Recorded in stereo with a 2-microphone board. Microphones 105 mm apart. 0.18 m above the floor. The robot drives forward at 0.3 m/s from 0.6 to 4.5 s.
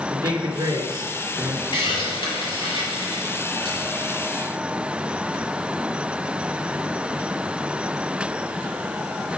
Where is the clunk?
I don't hear a clunk.